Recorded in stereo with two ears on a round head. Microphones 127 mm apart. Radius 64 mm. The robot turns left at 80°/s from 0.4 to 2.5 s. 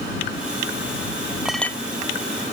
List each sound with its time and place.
1.4 s a clink: 5° right (ahead or behind); by 1.8 s 25° left (ahead or behind)